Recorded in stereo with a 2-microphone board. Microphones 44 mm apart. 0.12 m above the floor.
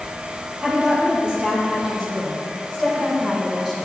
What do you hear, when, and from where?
0.6 s a woman speaking: 25° right (ahead or behind), 3.5 m; by 3.8 s 10° right (ahead or behind), 5.5 m